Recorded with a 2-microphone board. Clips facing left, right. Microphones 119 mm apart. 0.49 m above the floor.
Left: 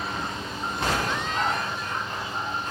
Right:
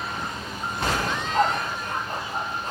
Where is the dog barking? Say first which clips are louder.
Right 4 dB; 50° right (ahead or behind), 6.5 m; by 2.7 s 30° right (ahead or behind), 7 m.